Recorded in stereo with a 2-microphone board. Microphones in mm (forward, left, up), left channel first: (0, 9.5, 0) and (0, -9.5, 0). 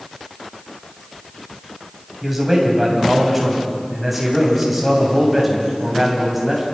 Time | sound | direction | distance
2.2 | a man speaking | 10° right (ahead or behind) | 8 m